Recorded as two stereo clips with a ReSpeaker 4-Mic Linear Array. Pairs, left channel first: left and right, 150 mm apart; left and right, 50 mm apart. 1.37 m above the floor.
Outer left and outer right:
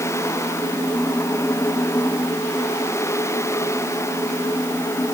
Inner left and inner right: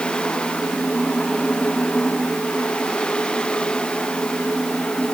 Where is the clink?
No clink in this recording.